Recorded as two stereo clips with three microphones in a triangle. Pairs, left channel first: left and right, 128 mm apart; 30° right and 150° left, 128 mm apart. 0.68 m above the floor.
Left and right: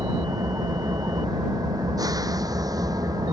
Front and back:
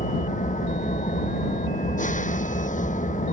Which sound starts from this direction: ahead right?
An engine running, at 0.0 s.